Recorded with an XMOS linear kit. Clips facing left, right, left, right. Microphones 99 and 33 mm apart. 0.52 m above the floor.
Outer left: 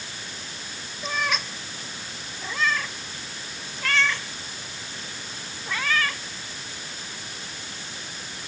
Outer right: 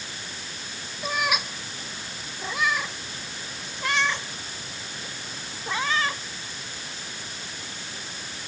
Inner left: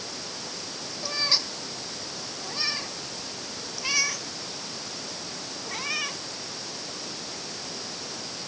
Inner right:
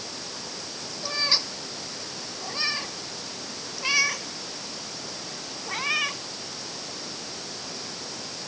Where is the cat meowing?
10° right (ahead or behind); by 6.2 s 20° right (ahead or behind).